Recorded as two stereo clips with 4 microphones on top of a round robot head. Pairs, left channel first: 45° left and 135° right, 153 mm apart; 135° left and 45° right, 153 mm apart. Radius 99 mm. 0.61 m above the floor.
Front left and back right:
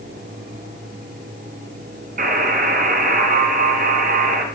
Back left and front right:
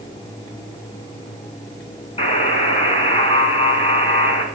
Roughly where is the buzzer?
Behind.